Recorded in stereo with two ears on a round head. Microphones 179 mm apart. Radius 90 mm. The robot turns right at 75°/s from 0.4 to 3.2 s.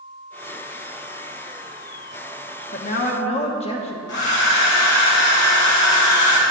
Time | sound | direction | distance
2.7 | a woman speaking | 105° left | 1.1 m
4.1 | a hair dryer | 60° left (ahead or behind) | 1.8 m